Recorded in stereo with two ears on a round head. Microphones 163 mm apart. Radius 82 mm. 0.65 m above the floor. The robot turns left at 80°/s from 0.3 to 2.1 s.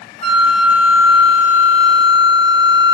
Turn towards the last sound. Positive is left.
turn(degrees=-65)